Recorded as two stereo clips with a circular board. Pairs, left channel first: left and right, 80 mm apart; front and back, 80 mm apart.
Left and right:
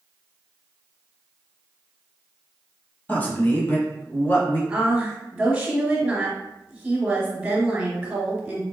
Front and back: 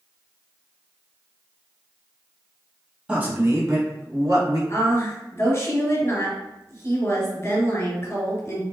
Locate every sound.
3.1 s a man speaking: 125° left, 1.0 m; by 4.6 s 155° left, 2.5 m
4.7 s a woman speaking: 15° right, 1.7 m